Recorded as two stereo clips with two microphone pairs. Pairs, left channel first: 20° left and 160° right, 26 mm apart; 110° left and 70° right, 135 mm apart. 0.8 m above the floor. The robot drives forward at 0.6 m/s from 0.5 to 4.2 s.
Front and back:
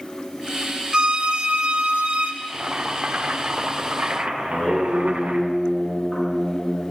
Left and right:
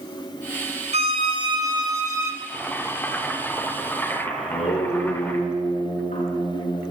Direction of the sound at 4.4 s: 85° left.